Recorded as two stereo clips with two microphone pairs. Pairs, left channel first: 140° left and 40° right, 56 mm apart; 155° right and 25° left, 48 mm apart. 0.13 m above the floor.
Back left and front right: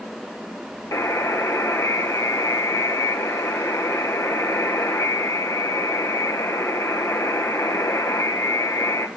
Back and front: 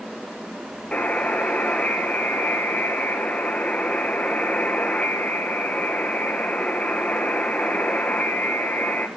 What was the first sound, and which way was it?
A buzzer, 140° left.